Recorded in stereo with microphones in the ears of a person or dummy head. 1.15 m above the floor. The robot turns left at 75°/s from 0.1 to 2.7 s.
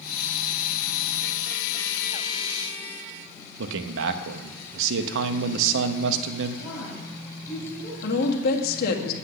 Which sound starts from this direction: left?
A woman speaking, at 8.0 s.